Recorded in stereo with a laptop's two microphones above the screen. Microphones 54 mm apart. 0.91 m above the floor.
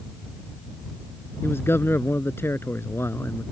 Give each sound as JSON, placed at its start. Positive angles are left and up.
{"t": 1.4, "sound": "a man speaking", "side_deg": 45}